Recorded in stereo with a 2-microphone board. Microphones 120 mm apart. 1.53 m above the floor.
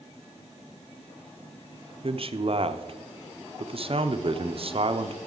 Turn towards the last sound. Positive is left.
turn(degrees=-50)  # may be behind; listen again after turning